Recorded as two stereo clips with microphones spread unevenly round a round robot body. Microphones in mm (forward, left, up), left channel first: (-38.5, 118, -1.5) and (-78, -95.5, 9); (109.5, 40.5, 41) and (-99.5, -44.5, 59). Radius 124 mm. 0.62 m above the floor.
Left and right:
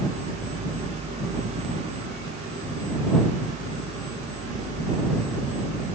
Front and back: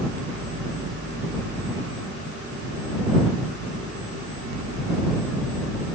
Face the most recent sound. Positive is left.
No sound to turn to.